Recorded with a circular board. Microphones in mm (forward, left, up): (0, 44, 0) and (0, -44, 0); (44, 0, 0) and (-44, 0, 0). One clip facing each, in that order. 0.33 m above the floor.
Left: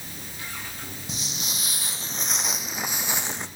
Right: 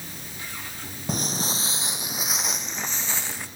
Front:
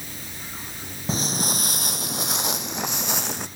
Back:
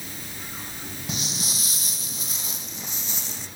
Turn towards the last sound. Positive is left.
turn(degrees=25)